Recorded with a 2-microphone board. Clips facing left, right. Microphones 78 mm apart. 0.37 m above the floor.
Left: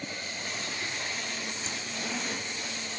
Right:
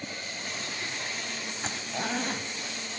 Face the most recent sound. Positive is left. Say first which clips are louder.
# right 3 dB
turn(degrees=-55)  # may be behind; listen again after turning